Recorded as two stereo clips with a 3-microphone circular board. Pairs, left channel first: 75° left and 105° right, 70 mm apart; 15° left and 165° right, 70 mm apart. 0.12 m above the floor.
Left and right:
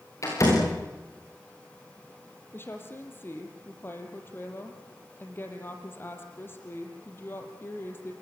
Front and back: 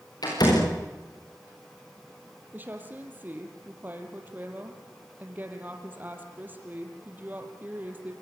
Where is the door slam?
35° left, 9.5 m.